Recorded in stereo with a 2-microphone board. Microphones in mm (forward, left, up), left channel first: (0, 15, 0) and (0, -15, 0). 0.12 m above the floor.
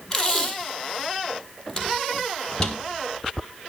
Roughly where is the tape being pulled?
Centre.